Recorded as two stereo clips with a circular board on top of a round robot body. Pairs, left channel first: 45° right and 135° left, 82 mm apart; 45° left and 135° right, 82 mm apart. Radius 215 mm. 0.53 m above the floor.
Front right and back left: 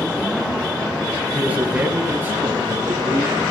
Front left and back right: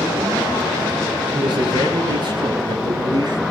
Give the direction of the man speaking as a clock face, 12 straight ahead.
5 o'clock.